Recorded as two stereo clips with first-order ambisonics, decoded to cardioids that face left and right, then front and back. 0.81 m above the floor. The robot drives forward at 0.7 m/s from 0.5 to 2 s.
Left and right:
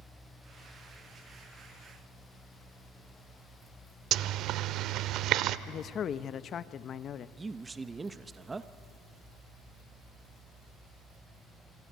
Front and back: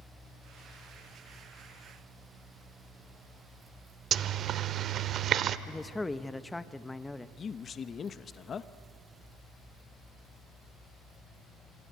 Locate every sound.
4.1 s a zipper: 125° right, 0.7 m
5.7 s a man speaking: 75° left, 0.6 m
7.4 s a man speaking: 30° right, 0.6 m